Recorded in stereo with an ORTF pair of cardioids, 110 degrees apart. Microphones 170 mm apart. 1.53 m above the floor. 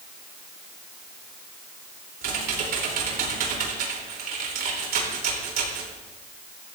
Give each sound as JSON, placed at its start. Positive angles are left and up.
{"t": 2.2, "sound": "typing on a keyboard", "azimuth_deg": -65, "distance_m": 3.5}